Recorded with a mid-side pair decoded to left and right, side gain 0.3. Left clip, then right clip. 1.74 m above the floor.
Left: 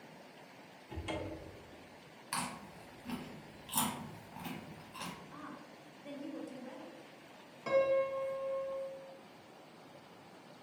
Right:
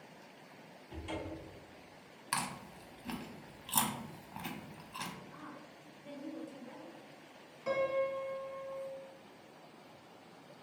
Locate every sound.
0.9 s a cupboard door: 70° left, 0.8 m
2.3 s chewing: 65° right, 0.7 m
5.3 s a woman speaking: 55° left, 1.0 m
7.7 s a piano: 35° left, 1.0 m